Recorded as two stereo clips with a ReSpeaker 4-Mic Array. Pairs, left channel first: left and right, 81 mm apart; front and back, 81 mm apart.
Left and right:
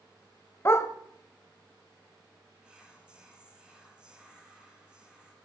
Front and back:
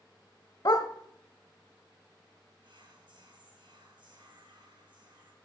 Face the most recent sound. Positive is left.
turn(degrees=-170)